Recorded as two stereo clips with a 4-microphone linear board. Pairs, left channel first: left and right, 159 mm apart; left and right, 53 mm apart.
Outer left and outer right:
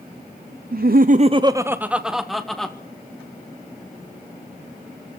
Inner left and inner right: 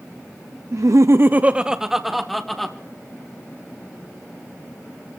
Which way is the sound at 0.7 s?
65° right (ahead or behind).